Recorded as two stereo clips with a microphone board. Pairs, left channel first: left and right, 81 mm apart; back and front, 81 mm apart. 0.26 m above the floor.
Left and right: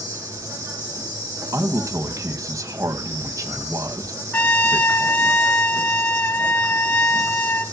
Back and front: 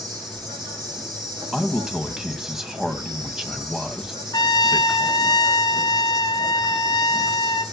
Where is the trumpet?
150° left, 1.5 m.